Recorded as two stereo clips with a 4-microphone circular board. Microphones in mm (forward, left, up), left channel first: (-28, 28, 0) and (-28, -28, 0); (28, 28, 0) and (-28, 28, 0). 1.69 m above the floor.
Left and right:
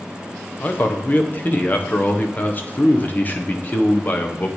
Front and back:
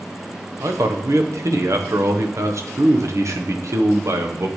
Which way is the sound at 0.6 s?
150° left.